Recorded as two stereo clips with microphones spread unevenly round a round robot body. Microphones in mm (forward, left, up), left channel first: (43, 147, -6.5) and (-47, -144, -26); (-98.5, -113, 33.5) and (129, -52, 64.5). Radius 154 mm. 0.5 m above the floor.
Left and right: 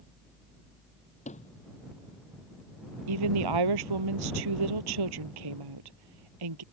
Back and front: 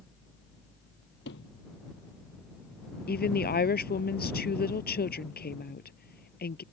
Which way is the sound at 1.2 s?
140° left.